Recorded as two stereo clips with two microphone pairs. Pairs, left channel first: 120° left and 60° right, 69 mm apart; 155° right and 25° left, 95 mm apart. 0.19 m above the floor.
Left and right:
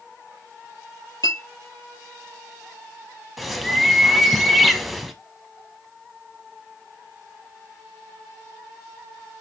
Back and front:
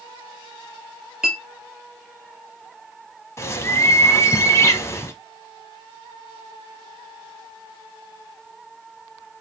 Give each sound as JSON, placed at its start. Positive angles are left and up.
{"t": 1.2, "sound": "a clink", "azimuth_deg": 105, "distance_m": 2.5}
{"t": 3.4, "sound": "a bird", "azimuth_deg": -145, "distance_m": 0.6}